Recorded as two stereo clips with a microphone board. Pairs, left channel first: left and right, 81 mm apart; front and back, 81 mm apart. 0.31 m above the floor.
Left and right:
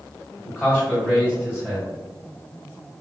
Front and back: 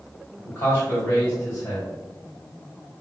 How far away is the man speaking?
About 2.0 m.